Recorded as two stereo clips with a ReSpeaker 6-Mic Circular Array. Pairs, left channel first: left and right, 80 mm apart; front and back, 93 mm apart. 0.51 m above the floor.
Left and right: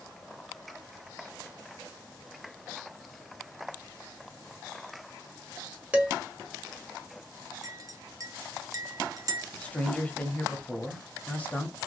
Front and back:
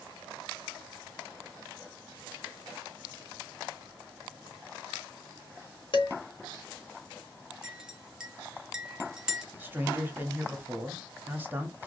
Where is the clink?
100° right, 0.7 m.